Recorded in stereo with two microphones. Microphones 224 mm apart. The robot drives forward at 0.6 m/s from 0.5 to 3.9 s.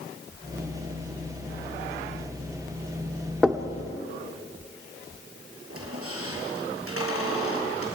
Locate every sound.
3.4 s knocking: 5° right (ahead or behind), 1.1 m
5.7 s a squeak: 80° right, 5.5 m